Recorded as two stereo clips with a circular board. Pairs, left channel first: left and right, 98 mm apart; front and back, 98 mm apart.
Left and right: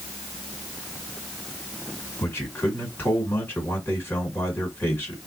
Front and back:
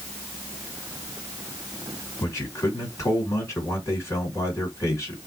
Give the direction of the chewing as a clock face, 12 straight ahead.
No chewing in this recording.